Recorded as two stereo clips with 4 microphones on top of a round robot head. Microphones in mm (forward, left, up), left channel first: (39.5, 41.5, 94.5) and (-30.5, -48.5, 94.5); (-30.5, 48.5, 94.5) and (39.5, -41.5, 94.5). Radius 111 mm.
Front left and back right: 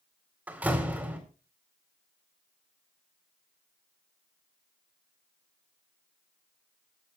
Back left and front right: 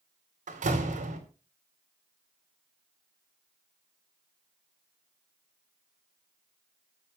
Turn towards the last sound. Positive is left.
turn(degrees=-50)